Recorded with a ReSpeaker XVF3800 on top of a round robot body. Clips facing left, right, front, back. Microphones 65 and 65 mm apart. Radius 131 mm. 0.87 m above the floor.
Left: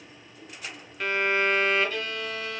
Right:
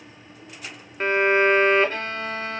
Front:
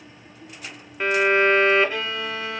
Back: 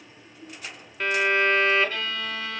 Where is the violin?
65° right, 1.1 m.